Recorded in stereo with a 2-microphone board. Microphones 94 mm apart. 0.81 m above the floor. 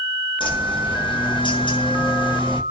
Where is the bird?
55° left (ahead or behind), 1.0 m.